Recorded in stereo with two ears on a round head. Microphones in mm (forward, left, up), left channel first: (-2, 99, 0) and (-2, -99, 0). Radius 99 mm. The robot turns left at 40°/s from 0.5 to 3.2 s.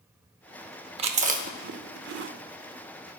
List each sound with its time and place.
1.0 s chewing: 25° right (ahead or behind), 0.7 m; by 2.3 s 55° right (ahead or behind), 0.7 m